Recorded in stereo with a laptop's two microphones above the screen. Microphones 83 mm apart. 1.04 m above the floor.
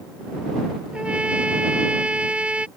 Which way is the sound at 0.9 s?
15° right (ahead or behind).